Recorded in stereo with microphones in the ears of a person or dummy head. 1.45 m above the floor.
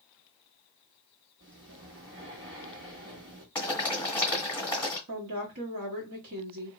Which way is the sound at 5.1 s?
75° right (ahead or behind).